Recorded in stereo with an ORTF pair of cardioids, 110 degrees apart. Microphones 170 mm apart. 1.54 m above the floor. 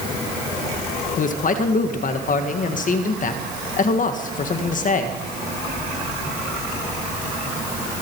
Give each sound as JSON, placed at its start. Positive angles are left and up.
{"t": 1.2, "sound": "a man speaking", "azimuth_deg": 50, "distance_m": 1.6}